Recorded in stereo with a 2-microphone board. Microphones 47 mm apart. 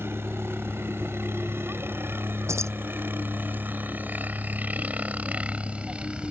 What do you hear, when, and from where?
0.0 s a helicopter: 60° right (ahead or behind); by 6.3 s 20° right (ahead or behind)
2.5 s keys jangling: 80° right